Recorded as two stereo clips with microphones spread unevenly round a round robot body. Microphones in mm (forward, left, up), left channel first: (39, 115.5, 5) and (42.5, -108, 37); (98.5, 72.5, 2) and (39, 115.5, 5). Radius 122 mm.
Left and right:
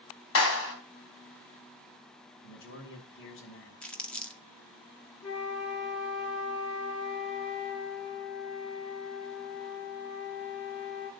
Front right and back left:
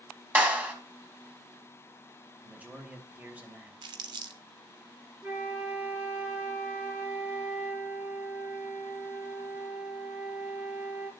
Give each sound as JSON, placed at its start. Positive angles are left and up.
{"t": 0.3, "sound": "a clap", "azimuth_deg": 75, "distance_m": 3.0}
{"t": 2.4, "sound": "a man speaking", "azimuth_deg": 75, "distance_m": 3.0}
{"t": 3.8, "sound": "crumpling", "azimuth_deg": 175, "distance_m": 0.7}
{"t": 5.2, "sound": "a flute", "azimuth_deg": 70, "distance_m": 3.0}